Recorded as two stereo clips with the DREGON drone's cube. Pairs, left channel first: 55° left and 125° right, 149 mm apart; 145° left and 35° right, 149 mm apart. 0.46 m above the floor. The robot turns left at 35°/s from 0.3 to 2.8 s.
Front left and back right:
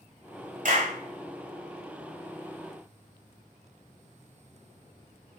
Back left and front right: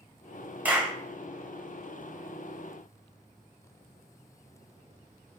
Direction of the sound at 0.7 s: 110° right.